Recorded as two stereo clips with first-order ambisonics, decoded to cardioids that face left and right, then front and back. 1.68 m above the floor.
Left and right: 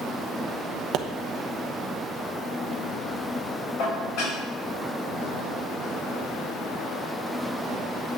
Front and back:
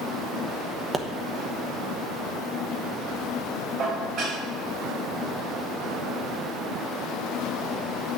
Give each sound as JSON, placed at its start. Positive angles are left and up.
{"t": 0.9, "sound": "a pop", "azimuth_deg": -110, "distance_m": 1.0}
{"t": 3.8, "sound": "dishes clattering", "azimuth_deg": 120, "distance_m": 5.0}